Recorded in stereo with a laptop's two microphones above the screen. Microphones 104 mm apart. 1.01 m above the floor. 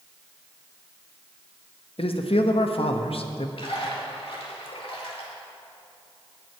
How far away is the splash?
About 2 m.